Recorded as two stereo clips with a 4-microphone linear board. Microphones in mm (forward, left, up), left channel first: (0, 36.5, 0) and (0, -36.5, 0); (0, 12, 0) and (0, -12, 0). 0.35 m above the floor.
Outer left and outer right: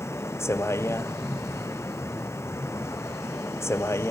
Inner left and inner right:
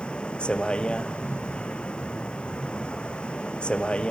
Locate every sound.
0.0 s a vehicle: 35° left (ahead or behind)